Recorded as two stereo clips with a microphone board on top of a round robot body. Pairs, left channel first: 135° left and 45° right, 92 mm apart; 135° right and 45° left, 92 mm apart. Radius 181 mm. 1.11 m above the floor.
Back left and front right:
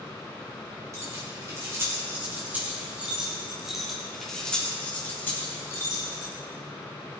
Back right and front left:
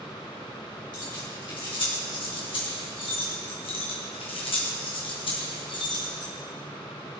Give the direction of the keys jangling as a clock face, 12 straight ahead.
3 o'clock.